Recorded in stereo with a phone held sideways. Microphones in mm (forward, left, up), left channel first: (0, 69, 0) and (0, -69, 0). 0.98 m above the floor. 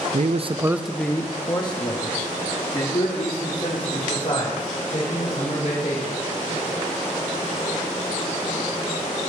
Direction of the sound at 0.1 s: 65° right (ahead or behind).